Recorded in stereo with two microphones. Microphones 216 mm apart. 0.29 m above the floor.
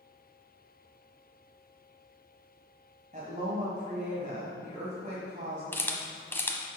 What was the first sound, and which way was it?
A woman speaking, 40° right (ahead or behind).